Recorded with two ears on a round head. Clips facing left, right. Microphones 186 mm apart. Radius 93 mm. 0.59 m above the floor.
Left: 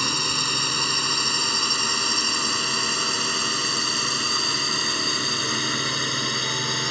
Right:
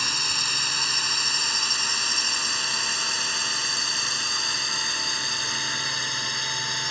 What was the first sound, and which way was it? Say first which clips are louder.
A drone: left 8 dB; 70° left (ahead or behind).